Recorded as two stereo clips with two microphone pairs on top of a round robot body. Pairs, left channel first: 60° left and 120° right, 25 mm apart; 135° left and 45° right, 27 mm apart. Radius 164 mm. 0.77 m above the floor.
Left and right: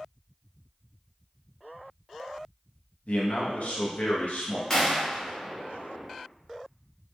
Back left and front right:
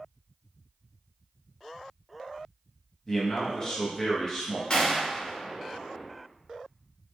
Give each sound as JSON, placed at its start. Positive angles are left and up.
{"t": 3.1, "sound": "a man speaking", "azimuth_deg": 75, "distance_m": 0.7}
{"t": 4.7, "sound": "a gunshot", "azimuth_deg": 115, "distance_m": 1.3}